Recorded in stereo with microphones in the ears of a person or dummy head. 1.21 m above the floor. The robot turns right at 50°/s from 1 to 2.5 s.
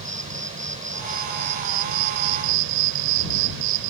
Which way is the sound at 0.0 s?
145° right.